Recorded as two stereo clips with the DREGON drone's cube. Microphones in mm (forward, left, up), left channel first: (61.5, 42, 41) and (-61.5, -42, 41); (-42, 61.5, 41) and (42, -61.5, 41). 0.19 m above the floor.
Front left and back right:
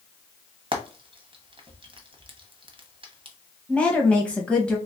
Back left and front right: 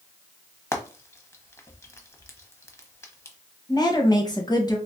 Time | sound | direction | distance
0.7 | frying | 170° right | 0.9 m
3.7 | a woman speaking | 110° left | 1.2 m